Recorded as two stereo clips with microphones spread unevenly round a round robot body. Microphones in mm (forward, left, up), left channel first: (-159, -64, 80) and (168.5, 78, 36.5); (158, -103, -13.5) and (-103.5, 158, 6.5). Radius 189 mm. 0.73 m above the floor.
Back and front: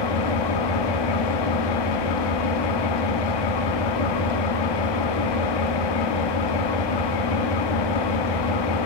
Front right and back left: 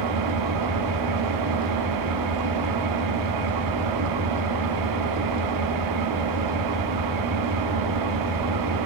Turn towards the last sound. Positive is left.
turn(degrees=180)